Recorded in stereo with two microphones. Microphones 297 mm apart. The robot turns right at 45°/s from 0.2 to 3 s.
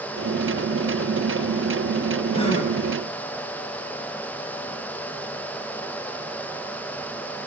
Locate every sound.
2.3 s a gasp: 15° left (ahead or behind), 5 m; by 2.7 s 35° left (ahead or behind), 5 m